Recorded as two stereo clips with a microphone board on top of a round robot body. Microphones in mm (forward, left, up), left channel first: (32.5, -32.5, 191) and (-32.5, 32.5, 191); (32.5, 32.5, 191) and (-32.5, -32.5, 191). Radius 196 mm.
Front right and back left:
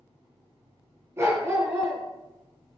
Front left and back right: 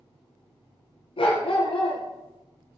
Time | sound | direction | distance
1.2 | a dog barking | 70° left | 3 m